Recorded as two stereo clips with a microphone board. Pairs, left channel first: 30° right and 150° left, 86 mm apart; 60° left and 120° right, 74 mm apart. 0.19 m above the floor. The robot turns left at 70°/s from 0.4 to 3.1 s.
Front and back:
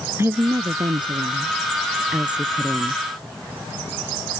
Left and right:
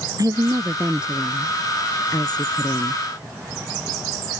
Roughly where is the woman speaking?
Behind right.